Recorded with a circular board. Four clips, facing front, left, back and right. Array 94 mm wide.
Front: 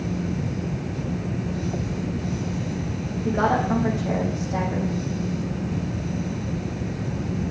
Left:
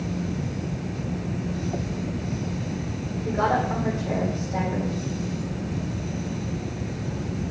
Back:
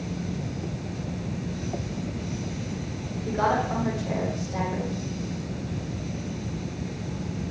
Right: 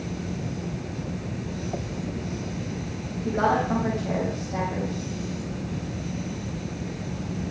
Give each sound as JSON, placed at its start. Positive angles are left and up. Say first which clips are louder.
{"t": 3.2, "sound": "a woman speaking", "louder": "right 1 dB, front 3 dB", "azimuth_deg": -15, "distance_m": 7.5}